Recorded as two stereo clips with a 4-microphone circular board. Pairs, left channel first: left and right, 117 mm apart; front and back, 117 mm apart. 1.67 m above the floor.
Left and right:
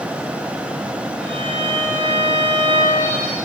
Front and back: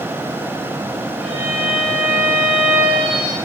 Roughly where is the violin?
Right.